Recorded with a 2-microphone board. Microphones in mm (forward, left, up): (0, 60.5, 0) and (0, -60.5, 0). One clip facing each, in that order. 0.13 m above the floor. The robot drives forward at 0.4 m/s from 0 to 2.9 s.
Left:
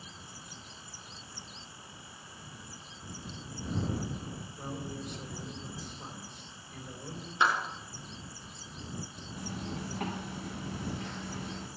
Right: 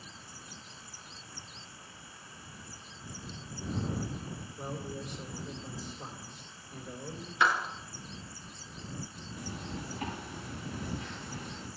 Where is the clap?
25° left (ahead or behind), 1.9 m.